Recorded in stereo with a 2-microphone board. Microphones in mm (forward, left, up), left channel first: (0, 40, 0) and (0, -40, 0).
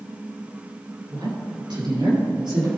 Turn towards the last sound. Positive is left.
turn(degrees=-70)  # may be behind; listen again after turning